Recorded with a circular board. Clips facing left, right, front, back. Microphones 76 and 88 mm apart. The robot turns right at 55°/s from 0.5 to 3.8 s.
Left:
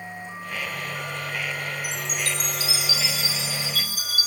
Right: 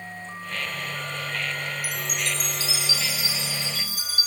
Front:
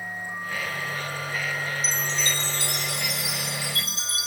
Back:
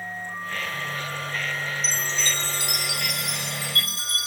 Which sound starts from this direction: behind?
A chime, at 1.8 s.